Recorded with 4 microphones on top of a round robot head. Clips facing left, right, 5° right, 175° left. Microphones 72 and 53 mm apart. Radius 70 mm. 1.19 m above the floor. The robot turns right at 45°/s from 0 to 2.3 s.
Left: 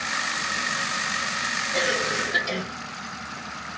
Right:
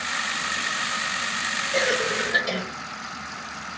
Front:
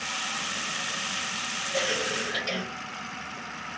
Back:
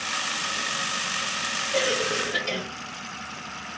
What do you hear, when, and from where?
1.7 s a cough: 150° right, 1.7 m; by 2.6 s 125° right, 1.7 m